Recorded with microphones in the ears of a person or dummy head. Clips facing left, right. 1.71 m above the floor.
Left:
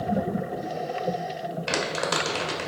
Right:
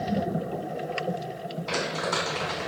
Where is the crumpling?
85° left, 0.9 m.